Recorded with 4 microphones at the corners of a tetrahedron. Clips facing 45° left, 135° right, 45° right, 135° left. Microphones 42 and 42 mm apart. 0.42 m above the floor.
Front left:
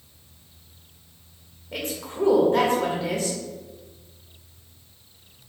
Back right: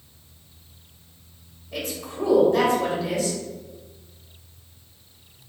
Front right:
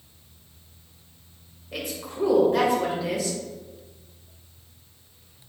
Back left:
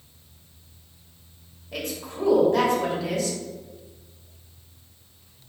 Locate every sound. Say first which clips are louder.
1.7 s a woman speaking: even, back left 1 dB; 30° left, 1.2 m